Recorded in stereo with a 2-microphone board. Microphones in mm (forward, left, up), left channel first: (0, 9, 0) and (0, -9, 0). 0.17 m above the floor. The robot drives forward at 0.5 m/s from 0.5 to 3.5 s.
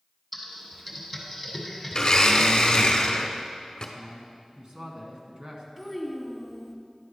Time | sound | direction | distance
0.3 | typing on a keyboard | 5° left (ahead or behind) | 1.3 m
1.9 | a blender | 40° left (ahead or behind) | 0.8 m
4.0 | a man speaking | 40° right (ahead or behind) | 1.4 m
5.8 | a child speaking | 5° right (ahead or behind) | 1.2 m